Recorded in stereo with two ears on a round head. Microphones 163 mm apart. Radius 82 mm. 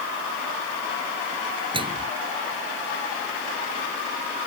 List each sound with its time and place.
1.7 s a microwave: 25° right (ahead or behind)